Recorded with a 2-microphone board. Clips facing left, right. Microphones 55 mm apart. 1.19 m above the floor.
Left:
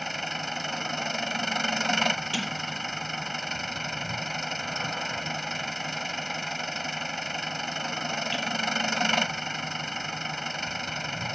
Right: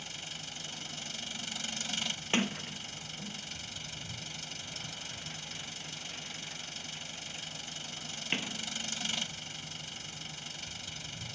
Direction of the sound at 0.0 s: 65° left (ahead or behind).